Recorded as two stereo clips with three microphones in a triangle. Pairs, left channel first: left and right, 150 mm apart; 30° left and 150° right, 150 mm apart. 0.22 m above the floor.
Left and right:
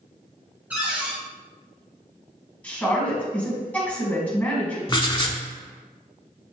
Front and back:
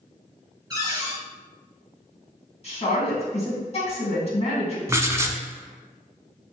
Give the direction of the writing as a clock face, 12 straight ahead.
7 o'clock.